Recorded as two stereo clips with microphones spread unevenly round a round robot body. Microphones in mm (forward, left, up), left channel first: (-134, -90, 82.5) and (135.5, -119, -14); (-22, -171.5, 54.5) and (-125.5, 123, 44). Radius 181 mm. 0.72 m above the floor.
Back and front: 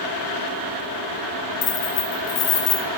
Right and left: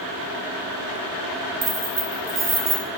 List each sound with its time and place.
1.6 s keys jangling: 165° left, 0.7 m